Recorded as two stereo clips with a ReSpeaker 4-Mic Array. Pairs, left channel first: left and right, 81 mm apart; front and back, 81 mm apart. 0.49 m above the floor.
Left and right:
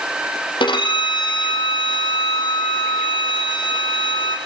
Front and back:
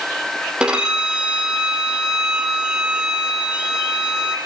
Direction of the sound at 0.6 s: 100° left.